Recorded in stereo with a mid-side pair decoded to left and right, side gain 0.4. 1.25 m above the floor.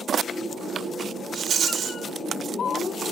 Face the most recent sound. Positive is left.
turn(degrees=-60)